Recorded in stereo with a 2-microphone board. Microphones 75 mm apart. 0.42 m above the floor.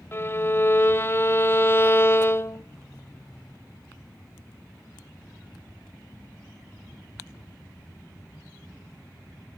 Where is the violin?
30° left (ahead or behind), 0.8 m.